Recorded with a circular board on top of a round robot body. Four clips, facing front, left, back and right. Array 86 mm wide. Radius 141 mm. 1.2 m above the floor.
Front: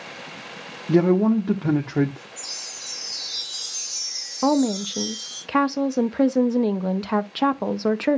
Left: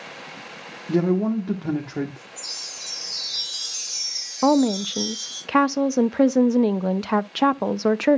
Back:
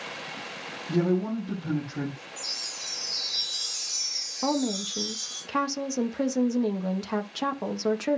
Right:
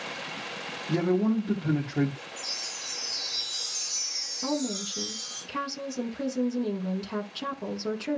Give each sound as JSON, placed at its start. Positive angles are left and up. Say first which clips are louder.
{"t": 0.9, "sound": "a man speaking", "louder": "left 4 dB, front 8 dB", "azimuth_deg": 15, "distance_m": 1.4}
{"t": 2.4, "sound": "a chime", "louder": "right 1 dB, even", "azimuth_deg": 105, "distance_m": 8.5}
{"t": 4.4, "sound": "a woman speaking", "louder": "left 12 dB, front 7 dB", "azimuth_deg": 70, "distance_m": 0.7}